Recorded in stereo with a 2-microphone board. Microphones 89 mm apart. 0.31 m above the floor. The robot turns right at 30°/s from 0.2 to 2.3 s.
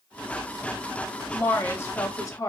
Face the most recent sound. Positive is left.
turn(degrees=40)  # may be behind; listen again after turning